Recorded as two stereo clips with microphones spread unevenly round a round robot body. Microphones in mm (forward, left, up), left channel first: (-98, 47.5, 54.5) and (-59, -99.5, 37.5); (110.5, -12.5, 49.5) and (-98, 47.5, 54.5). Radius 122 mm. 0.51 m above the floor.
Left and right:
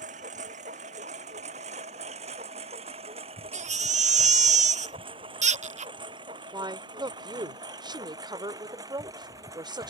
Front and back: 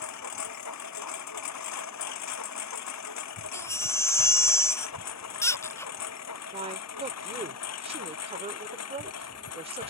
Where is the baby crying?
90° right.